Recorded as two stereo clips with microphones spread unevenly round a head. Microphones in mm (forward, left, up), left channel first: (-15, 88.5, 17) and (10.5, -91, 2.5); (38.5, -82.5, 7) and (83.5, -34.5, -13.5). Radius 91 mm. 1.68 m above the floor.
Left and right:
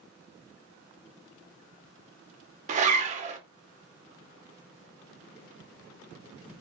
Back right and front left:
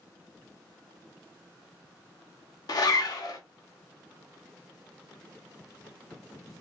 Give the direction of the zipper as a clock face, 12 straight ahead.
5 o'clock.